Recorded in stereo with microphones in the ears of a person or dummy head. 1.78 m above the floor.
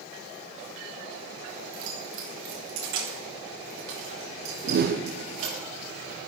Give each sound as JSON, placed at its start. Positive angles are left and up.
{"t": 1.7, "sound": "keys jangling", "side_deg": -75, "distance_m": 4.5}
{"t": 4.6, "sound": "a whoosh", "side_deg": -55, "distance_m": 0.8}